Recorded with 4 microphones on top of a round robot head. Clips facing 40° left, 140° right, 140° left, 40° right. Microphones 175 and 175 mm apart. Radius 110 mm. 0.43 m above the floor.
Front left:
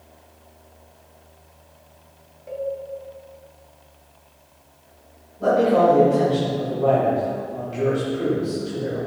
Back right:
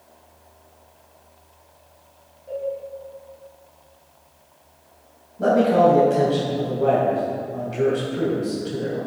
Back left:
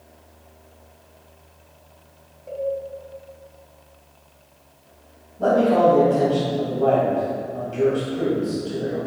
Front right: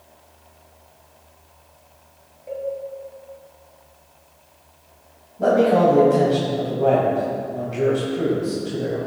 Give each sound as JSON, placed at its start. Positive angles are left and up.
{"t": 2.5, "sound": "a cowbell", "azimuth_deg": 50, "distance_m": 1.6}
{"t": 5.4, "sound": "a man speaking", "azimuth_deg": -115, "distance_m": 3.0}